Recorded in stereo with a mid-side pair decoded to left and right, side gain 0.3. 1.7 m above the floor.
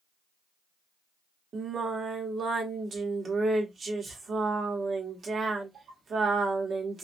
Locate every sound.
1.5 s singing: 65° right, 1.0 m